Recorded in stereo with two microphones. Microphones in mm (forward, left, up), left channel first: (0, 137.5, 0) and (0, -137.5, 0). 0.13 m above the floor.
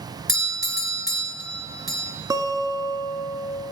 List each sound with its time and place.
0.3 s a doorbell: 35° left (ahead or behind), 1.9 m
2.3 s a guitar: 15° right (ahead or behind), 1.2 m